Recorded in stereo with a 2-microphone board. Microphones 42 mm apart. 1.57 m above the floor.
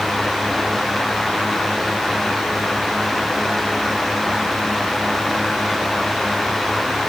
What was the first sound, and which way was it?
Only background noise.